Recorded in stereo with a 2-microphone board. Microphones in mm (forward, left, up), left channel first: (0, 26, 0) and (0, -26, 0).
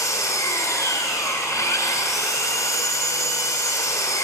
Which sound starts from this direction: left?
An engine running, at 0.0 s.